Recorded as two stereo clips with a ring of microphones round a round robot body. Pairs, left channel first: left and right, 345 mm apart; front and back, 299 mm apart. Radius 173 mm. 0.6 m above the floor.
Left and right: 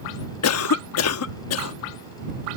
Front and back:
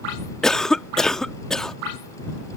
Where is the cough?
85° left.